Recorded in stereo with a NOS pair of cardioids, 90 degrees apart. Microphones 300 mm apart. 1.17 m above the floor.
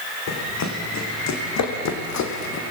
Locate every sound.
0.3 s running footsteps: 60° left, 6 m; by 2.6 s 70° left, 3 m